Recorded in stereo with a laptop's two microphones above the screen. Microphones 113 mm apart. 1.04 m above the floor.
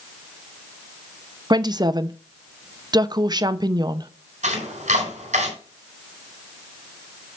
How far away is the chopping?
About 4 m.